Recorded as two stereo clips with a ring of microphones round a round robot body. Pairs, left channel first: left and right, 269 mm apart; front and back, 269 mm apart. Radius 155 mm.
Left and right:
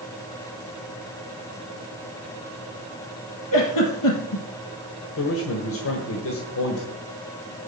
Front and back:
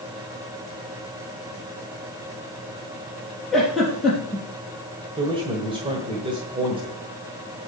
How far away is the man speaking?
About 1.6 m.